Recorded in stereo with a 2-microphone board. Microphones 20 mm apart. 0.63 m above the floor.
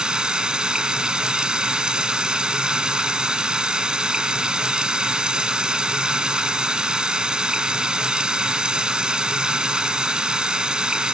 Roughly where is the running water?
Right.